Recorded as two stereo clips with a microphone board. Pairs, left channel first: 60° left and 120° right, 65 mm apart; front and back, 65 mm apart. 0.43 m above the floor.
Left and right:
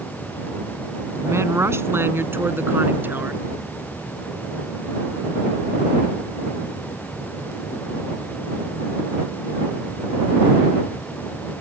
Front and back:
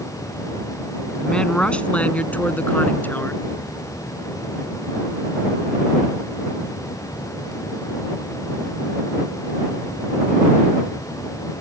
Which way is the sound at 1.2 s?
75° right.